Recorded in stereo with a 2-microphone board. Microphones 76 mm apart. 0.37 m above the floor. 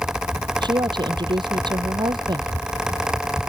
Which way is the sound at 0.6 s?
85° right.